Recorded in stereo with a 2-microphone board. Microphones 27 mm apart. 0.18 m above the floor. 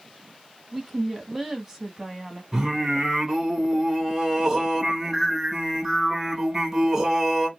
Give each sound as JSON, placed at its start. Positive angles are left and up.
{"t": 0.7, "sound": "a woman speaking", "side_deg": -15, "distance_m": 1.0}
{"t": 2.5, "sound": "singing", "side_deg": -20, "distance_m": 1.6}